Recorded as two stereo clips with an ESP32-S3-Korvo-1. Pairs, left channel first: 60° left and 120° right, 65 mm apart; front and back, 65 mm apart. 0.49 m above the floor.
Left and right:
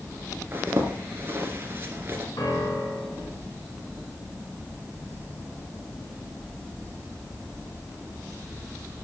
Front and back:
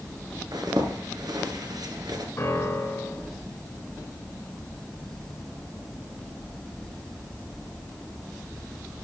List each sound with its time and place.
0.5 s a zipper: 175° right, 2.5 m
2.4 s a piano: 45° left, 4 m